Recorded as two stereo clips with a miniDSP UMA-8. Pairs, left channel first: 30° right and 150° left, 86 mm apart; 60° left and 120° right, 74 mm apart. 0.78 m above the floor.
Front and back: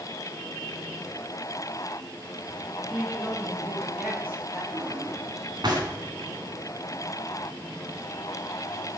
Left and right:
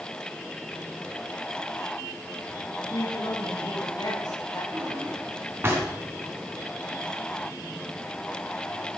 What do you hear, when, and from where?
2.9 s a woman speaking: 80° left, 5 m; by 4.6 s 90° left, 6 m
4.7 s a drawer: straight behind, 4 m